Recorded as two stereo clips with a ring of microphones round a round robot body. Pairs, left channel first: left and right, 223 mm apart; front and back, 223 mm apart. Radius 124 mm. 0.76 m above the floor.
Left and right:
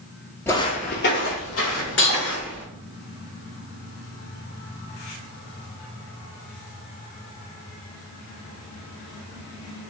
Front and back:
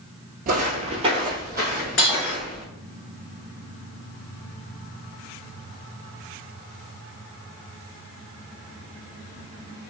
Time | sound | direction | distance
0.5 | footsteps | 165° left | 0.8 m
2.0 | breaking glass | 45° left | 1.9 m